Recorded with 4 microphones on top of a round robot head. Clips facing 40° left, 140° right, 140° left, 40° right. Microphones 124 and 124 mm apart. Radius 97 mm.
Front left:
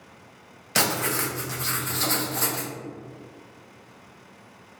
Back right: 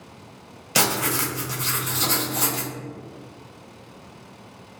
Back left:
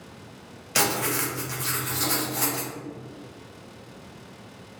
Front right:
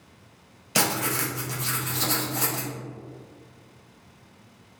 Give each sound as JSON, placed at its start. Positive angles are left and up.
{"t": 0.8, "sound": "writing", "azimuth_deg": -80, "distance_m": 0.8}